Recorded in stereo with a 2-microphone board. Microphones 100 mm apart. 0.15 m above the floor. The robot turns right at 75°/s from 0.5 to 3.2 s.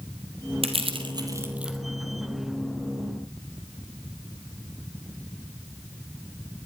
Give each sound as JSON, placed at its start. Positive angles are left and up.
{"t": 0.6, "sound": "crushing", "side_deg": -75, "distance_m": 3.0}